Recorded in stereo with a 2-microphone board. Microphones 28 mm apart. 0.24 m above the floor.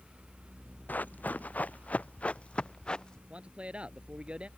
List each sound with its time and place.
0.9 s running footsteps: 80° left; by 3.2 s 30° left (ahead or behind)
3.3 s a man speaking: 40° right (ahead or behind)